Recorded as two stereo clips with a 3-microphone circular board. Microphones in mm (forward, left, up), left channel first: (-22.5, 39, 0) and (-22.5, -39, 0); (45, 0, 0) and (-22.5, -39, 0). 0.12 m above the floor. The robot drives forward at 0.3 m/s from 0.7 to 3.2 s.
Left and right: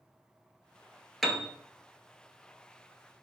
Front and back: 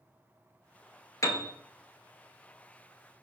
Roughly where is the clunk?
No clunk in this recording.